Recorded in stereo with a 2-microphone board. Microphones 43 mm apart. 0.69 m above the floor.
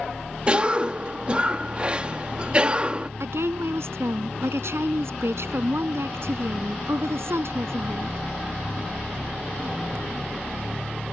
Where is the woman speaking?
75° right (ahead or behind).